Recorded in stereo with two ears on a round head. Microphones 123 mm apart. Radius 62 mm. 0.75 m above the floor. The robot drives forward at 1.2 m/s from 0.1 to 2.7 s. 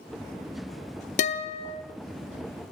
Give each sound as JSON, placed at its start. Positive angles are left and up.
{"t": 1.2, "sound": "a guitar", "side_deg": 55, "distance_m": 0.9}